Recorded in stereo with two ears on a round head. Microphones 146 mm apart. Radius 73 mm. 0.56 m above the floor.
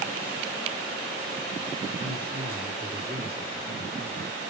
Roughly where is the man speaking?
Centre.